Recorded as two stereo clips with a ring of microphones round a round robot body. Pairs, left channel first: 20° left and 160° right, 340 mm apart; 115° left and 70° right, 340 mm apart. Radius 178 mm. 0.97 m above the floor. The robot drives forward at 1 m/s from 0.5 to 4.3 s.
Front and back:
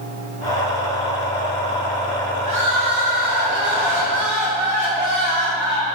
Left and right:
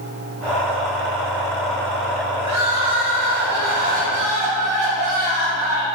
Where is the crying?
115° right, 3 m; by 5.8 s 140° right, 4 m.